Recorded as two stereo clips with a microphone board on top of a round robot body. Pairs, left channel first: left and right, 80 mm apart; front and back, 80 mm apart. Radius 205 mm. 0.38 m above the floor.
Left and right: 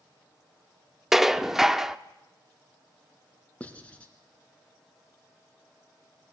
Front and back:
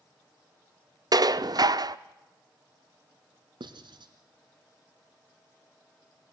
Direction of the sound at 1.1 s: 175° right.